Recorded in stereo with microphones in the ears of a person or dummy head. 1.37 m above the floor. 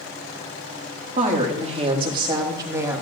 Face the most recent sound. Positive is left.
turn(degrees=-10)  # may be behind; listen again after turning